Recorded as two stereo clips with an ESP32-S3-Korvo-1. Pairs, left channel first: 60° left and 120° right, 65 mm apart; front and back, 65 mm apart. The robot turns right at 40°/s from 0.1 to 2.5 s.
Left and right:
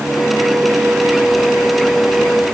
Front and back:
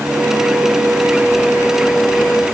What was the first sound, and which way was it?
Only background noise.